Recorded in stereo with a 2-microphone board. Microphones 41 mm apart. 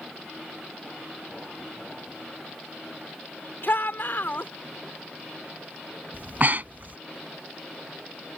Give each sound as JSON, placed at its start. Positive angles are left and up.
{"t": 3.6, "sound": "a shout", "side_deg": 60}
{"t": 6.1, "sound": "breathing", "side_deg": -45}